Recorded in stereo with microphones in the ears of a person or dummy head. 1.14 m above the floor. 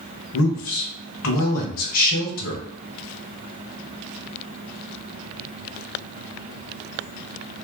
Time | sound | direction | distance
0.3 | a man speaking | 70° left (ahead or behind) | 1.0 m